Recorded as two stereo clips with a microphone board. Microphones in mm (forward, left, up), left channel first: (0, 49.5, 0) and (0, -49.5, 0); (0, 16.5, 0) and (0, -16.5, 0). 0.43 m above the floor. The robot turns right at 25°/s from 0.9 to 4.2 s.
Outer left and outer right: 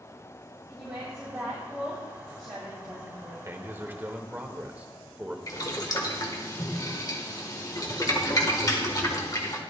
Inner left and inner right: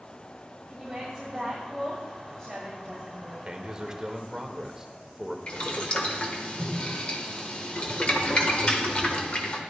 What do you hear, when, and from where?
0.7 s a woman speaking: 10° right, 4.5 m; by 3.4 s 50° left, 4.5 m
3.5 s a man speaking: 25° right (ahead or behind), 1.2 m; by 5.4 s 15° right (ahead or behind), 1.2 m
5.5 s boiling: 35° left (ahead or behind), 1.5 m